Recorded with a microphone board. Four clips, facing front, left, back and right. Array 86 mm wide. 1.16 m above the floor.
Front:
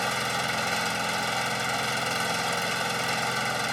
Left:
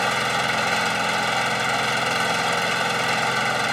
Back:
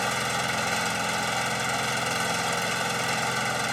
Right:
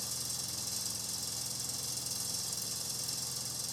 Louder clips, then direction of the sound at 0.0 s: Left 28 dB, back 1 dB; 95° left.